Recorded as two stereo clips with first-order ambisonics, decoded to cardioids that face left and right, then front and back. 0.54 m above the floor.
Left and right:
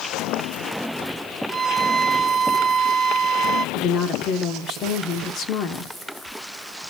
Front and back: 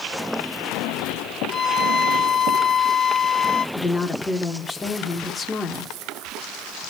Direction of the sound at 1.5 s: 35° right.